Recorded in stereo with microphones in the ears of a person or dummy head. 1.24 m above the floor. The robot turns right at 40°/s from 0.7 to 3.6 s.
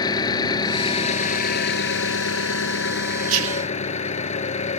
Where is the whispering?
80° right; by 3.7 s 85° right.